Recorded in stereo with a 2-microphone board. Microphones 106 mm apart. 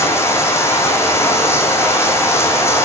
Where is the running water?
25° left (ahead or behind), 2.5 m.